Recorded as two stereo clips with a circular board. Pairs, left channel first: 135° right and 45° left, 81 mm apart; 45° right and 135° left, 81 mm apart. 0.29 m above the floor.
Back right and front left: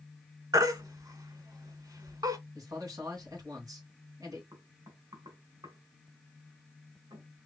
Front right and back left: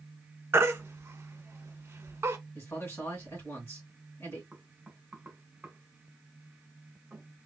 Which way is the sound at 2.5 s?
15° left.